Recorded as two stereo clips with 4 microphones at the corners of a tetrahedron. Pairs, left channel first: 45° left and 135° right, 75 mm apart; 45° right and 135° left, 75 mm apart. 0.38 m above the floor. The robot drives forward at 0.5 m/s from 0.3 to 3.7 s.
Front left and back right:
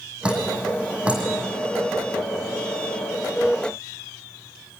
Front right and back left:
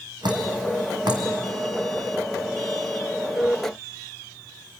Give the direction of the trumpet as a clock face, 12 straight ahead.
No trumpet in this recording.